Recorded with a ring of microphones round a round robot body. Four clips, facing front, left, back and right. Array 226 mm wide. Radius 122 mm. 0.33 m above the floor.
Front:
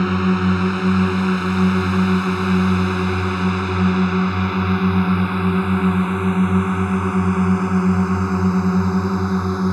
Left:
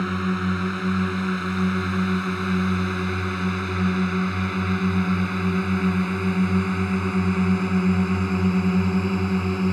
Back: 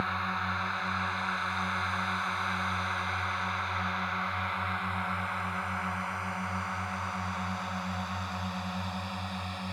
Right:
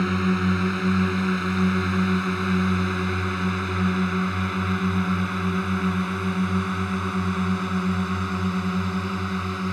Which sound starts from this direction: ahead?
A drone, at 0.0 s.